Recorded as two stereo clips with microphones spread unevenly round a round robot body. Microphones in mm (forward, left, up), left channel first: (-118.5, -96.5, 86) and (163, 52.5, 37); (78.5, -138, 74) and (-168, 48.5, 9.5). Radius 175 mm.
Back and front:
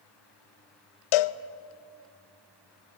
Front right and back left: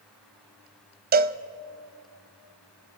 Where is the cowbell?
150° right, 0.6 m.